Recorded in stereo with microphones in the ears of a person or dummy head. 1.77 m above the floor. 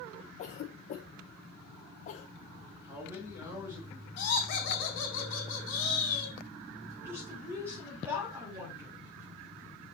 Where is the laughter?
55° left (ahead or behind), 2.5 m.